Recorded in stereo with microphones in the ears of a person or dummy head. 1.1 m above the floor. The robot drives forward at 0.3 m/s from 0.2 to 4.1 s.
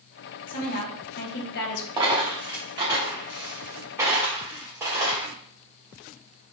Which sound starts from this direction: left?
A woman speaking, at 0.5 s.